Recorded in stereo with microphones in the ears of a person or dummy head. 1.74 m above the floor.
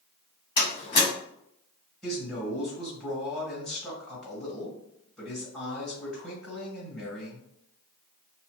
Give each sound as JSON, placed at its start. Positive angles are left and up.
{"t": 0.6, "sound": "a door slam", "side_deg": 30, "distance_m": 1.6}
{"t": 2.0, "sound": "a man speaking", "side_deg": 5, "distance_m": 1.6}